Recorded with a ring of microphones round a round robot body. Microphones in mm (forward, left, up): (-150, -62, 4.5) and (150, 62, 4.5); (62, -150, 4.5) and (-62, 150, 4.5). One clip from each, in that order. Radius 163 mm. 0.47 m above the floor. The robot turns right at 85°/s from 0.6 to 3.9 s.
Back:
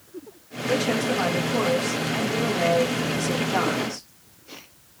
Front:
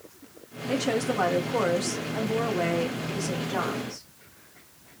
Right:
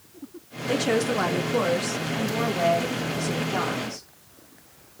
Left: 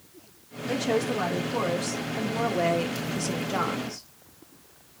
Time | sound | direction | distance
0.7 | a woman speaking | 80° right | 0.7 m